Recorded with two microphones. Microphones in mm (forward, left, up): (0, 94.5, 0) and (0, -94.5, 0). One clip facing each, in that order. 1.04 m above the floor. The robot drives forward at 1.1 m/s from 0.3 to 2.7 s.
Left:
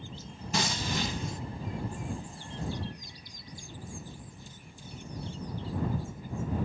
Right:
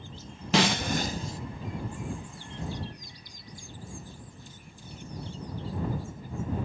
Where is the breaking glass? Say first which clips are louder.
Right 7 dB; 75° right (ahead or behind); by 1.4 s 30° right (ahead or behind).